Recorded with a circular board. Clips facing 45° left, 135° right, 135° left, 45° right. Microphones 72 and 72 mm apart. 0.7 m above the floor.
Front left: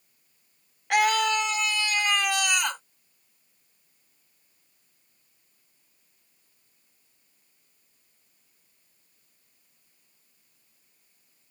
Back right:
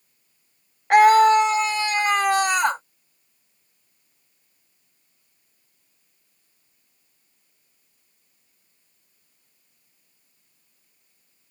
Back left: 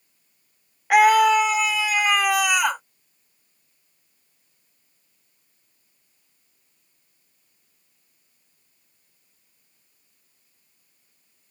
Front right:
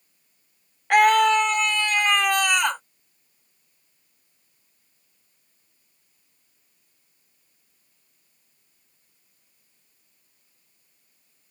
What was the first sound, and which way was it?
A scream, 145° right.